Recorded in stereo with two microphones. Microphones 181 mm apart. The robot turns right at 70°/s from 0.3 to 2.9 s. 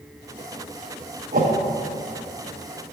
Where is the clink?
No clink in this recording.